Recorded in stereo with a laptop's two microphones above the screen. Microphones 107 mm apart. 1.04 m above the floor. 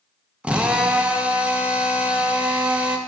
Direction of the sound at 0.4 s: 10° right (ahead or behind).